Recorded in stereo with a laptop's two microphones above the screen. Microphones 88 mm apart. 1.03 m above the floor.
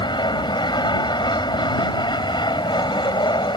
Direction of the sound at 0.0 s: 60° left (ahead or behind).